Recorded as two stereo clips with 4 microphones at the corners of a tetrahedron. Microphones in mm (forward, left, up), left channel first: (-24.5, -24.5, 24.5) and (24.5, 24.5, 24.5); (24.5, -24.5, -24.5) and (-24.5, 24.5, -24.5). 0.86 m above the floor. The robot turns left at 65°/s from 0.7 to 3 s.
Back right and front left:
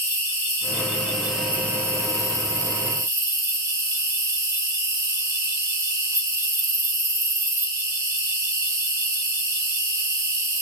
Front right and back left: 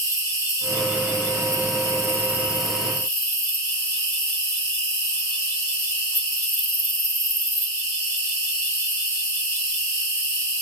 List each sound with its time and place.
0.0 s an insect: 170° left, 2.5 m; by 10.6 s 20° left, 2.5 m